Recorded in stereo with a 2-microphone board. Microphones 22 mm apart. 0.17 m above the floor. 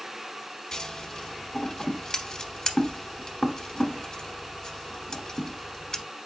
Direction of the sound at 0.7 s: 30° left (ahead or behind).